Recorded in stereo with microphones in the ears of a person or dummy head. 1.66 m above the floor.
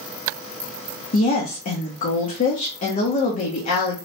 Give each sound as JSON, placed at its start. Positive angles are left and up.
{"t": 1.1, "sound": "a woman speaking", "side_deg": 40, "distance_m": 0.6}